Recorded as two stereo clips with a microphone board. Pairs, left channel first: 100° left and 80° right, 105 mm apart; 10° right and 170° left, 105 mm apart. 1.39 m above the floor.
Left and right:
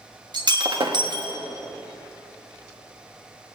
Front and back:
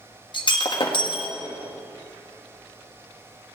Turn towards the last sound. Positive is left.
turn(degrees=-40)